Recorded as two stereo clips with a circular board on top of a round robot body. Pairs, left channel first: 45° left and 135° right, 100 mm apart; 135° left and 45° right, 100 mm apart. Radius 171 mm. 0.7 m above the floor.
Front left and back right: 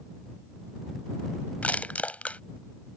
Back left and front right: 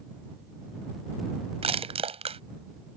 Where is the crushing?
30° right.